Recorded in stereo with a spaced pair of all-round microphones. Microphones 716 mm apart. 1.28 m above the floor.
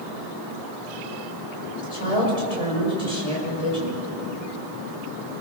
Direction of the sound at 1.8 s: 60° left (ahead or behind).